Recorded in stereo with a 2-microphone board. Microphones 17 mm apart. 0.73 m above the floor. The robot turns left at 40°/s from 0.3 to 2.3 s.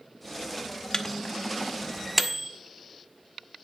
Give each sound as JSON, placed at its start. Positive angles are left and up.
{"t": 0.9, "sound": "a microwave", "side_deg": 35, "distance_m": 0.8}